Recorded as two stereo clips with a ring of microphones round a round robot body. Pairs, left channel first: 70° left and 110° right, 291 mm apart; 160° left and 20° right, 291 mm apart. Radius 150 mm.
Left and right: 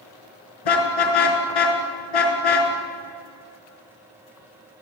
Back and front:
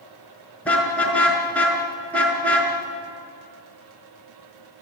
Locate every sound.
0.7 s a car horn: 70° left, 5 m